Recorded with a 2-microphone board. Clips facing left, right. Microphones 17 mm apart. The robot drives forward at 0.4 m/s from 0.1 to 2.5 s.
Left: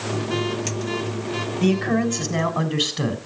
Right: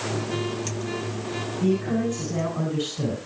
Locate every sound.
1.6 s a man speaking: 55° left (ahead or behind), 2.5 m; by 3.2 s 50° left (ahead or behind), 3 m